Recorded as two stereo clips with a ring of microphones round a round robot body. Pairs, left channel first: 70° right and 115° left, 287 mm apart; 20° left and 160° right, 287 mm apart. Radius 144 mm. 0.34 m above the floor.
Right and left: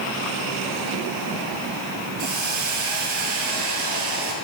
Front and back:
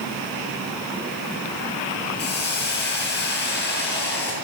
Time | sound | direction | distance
2.2 | a hiss | 80° left | 8.5 m